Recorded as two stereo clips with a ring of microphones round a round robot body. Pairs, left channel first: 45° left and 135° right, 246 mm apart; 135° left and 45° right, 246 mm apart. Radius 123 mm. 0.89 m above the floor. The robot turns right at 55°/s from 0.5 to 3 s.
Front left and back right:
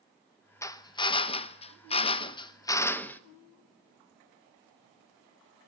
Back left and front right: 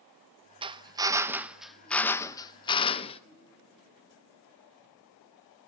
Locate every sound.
0.6 s a drill: 15° right, 0.9 m; by 3.2 s 115° left, 0.9 m